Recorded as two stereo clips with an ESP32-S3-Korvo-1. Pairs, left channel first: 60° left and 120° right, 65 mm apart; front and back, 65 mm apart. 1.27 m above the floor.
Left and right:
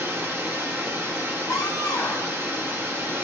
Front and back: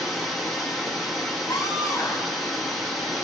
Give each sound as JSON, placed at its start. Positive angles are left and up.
{"t": 0.0, "sound": "running water", "azimuth_deg": -90, "distance_m": 0.7}
{"t": 1.5, "sound": "a scream", "azimuth_deg": 25, "distance_m": 0.7}